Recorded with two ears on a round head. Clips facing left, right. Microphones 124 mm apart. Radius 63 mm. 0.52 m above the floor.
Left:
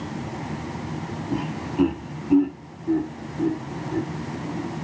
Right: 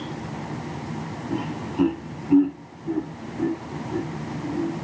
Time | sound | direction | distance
1.3 | laughter | centre (ahead or behind) | 1.0 m